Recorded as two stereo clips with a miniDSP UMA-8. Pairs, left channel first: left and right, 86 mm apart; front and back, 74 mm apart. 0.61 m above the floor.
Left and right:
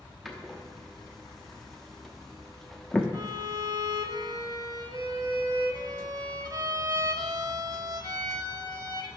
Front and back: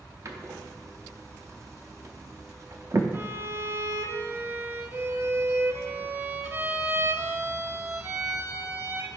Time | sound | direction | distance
0.2 | a door slam | straight behind | 0.8 m
3.1 | a violin | 125° right | 0.6 m